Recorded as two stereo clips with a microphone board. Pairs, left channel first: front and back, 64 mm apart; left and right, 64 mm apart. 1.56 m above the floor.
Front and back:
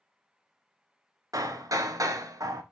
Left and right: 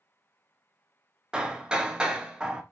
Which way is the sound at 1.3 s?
165° right.